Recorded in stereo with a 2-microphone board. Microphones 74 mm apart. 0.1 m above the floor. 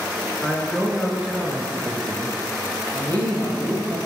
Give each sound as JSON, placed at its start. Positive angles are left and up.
{"t": 0.4, "sound": "a man speaking", "side_deg": 10, "distance_m": 1.5}
{"t": 2.9, "sound": "a man speaking", "side_deg": -50, "distance_m": 3.0}